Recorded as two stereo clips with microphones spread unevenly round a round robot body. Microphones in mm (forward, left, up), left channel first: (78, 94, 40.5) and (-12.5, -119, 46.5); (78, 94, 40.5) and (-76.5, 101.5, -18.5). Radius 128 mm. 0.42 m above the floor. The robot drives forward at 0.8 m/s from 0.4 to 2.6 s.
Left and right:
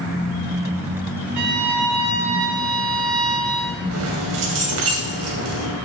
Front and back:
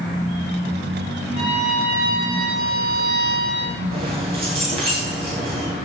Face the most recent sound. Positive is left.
turn(degrees=-130)